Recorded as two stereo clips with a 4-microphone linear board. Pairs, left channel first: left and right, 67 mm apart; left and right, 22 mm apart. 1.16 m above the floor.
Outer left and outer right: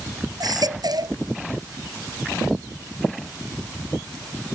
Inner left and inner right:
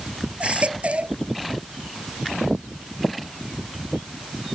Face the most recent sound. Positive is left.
turn(degrees=-75)  # may be behind; listen again after turning